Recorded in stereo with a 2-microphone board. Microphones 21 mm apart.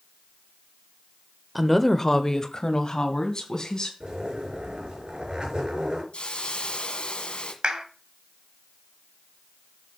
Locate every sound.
1.6 s a woman speaking: 5° left (ahead or behind), 0.9 m; by 3.9 s 35° left (ahead or behind), 3 m
4.0 s a zipper: 55° right (ahead or behind), 5.5 m
6.1 s a hiss: 70° left (ahead or behind), 1.6 m
7.6 s a clap: 60° right (ahead or behind), 1.6 m